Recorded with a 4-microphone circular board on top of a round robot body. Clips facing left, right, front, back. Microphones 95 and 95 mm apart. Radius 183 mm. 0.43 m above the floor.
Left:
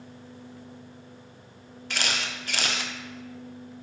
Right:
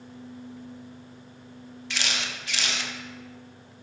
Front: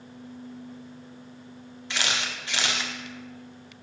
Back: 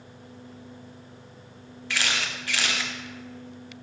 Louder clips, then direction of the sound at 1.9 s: Left 2 dB, back 1 dB; 60° left.